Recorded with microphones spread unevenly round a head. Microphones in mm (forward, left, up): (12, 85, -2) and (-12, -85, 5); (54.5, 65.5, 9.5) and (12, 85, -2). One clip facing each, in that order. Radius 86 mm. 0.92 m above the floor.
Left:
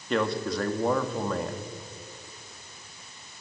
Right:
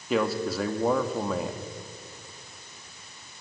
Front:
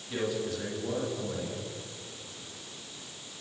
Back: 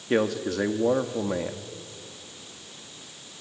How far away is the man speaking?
About 1.4 m.